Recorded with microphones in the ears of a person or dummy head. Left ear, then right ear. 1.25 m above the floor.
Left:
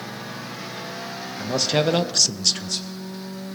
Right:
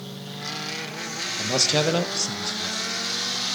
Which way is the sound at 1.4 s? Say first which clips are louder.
Even; 10° right (ahead or behind).